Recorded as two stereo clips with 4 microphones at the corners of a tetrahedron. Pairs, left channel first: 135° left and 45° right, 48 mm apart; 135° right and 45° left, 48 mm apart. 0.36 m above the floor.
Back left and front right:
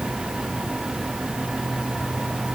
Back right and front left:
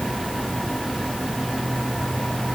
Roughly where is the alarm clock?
No alarm clock in this recording.